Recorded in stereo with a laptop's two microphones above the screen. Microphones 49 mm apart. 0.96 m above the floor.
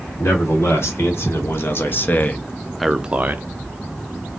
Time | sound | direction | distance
0.2 | a man speaking | 70° left (ahead or behind) | 1.7 m